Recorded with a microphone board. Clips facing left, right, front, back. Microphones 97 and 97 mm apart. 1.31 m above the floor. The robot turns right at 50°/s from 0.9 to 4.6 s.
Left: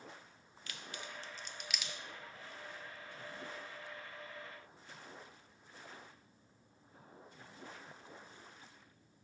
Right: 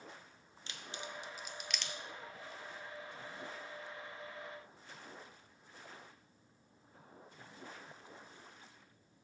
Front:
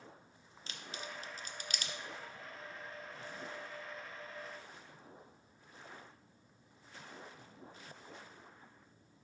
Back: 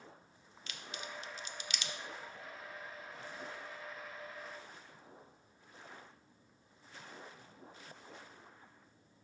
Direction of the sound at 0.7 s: 35° right.